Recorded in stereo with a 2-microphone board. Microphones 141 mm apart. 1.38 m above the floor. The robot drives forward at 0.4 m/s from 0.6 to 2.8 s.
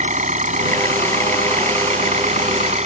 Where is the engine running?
60° right (ahead or behind); by 2.9 s 55° right (ahead or behind).